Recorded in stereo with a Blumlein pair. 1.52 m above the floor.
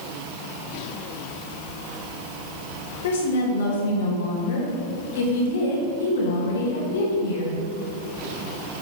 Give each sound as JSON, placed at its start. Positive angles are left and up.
{"t": 3.0, "sound": "a woman speaking", "azimuth_deg": 55, "distance_m": 2.5}